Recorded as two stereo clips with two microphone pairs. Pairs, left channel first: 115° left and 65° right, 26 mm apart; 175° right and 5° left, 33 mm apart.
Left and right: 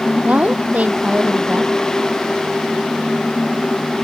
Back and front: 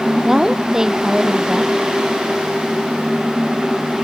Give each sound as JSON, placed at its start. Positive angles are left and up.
{"t": 0.2, "sound": "a woman speaking", "azimuth_deg": -65}